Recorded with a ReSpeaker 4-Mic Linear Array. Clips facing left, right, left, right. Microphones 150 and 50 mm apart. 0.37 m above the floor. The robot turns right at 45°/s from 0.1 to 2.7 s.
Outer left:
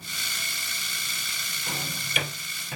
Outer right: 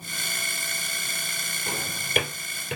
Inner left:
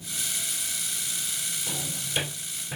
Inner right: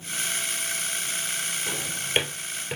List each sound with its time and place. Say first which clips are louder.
1.7 s a drawer: outer right 1 dB, inner right 4 dB; 30° right (ahead or behind), 3 m; by 2.8 s 75° right (ahead or behind), 3 m